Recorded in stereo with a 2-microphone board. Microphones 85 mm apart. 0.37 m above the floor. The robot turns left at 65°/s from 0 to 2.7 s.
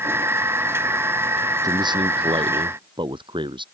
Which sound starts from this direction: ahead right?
A man speaking, at 1.6 s.